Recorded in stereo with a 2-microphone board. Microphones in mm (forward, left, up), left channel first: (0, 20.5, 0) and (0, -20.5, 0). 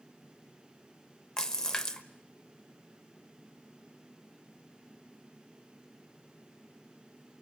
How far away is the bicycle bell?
No bicycle bell in this recording.